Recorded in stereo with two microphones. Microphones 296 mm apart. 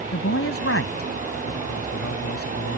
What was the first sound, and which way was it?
A man speaking, 50° left (ahead or behind).